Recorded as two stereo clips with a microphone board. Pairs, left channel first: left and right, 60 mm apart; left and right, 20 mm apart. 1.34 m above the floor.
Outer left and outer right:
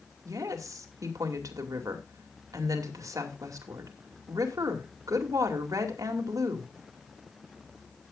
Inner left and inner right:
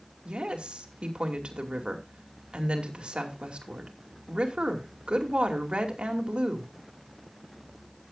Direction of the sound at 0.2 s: 70° right (ahead or behind).